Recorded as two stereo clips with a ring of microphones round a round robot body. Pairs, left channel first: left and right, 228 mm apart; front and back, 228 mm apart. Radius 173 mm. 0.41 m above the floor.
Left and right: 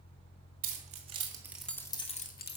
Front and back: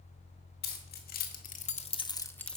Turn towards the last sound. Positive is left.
turn(degrees=85)